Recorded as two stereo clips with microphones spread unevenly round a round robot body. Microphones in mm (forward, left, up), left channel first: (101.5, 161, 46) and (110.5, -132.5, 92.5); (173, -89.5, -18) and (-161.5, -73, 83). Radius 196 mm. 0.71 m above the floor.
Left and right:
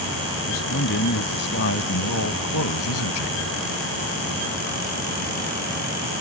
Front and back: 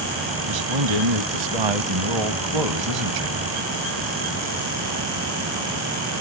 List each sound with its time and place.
0.5 s a man speaking: 155° left; by 3.4 s 135° left